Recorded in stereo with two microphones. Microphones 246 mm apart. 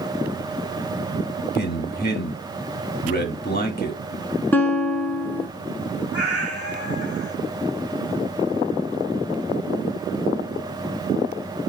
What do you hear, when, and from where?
1.6 s a man speaking: 40° left (ahead or behind), 1.2 m
4.5 s a guitar: 5° left (ahead or behind), 1.0 m
6.1 s a cat meowing: 65° left (ahead or behind), 1.1 m